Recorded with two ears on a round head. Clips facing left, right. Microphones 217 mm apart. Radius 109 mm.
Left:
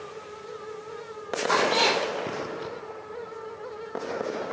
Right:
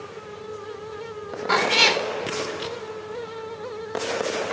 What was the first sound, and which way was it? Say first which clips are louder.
A cat meowing: right 1 dB; 40° right (ahead or behind).